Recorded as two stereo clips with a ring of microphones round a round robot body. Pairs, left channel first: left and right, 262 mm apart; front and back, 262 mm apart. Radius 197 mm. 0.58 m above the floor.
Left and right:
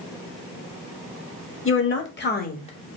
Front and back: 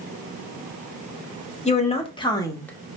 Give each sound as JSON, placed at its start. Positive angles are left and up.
{"t": 1.6, "sound": "a woman speaking", "azimuth_deg": 65, "distance_m": 1.7}